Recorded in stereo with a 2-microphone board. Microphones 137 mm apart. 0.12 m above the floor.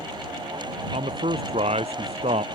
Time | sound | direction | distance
0.9 | a man speaking | 50° right (ahead or behind) | ?